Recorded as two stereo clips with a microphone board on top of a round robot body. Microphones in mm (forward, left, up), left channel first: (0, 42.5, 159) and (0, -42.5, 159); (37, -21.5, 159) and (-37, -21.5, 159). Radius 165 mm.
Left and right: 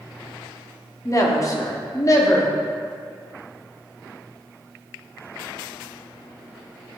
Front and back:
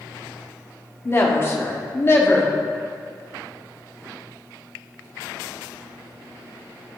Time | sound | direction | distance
1.1 | a woman speaking | 50° left | 1.6 m